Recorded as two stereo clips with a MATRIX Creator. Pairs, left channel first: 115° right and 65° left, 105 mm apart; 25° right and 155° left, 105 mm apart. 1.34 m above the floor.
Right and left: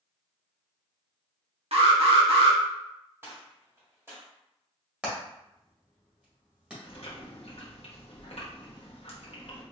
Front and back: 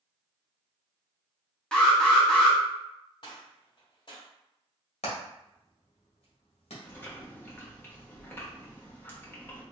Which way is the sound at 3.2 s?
5° left.